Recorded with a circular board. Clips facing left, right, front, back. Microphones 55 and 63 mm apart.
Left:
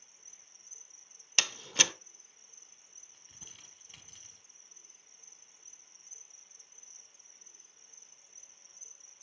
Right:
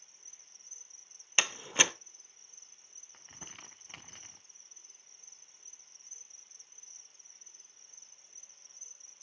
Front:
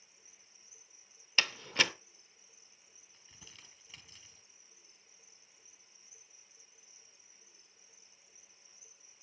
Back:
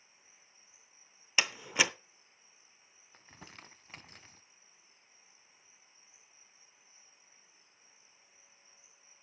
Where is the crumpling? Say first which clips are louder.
Right 8 dB, back 7 dB; 135° right, 0.7 m.